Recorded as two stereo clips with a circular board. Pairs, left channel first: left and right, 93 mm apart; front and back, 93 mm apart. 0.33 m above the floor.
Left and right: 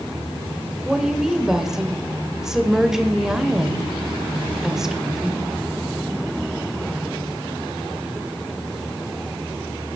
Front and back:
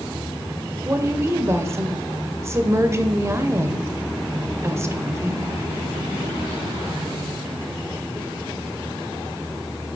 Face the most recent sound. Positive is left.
turn(degrees=-170)